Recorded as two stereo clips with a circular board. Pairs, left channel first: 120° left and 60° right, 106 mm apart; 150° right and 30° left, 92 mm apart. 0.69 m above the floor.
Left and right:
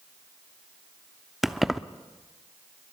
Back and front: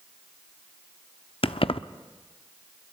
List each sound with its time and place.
1.4 s keys jangling: 150° right, 0.6 m